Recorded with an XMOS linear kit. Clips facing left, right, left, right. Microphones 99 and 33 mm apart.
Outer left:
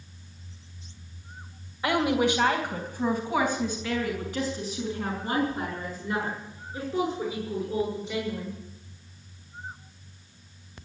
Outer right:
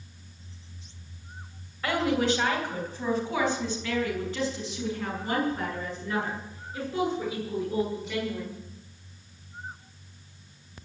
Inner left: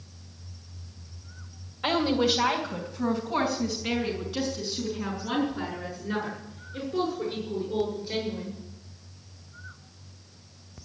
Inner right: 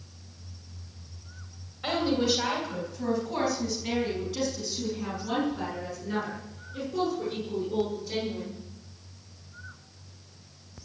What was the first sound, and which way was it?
A woman speaking, 15° left (ahead or behind).